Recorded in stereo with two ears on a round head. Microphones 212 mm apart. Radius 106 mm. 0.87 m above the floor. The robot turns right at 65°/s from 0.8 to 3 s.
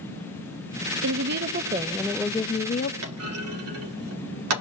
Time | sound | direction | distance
1.0 | a woman speaking | 75° right | 0.7 m
3.0 | a clunk | 65° right (ahead or behind) | 2.5 m